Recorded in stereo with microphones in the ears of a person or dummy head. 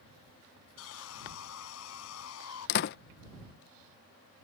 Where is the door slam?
50° left (ahead or behind).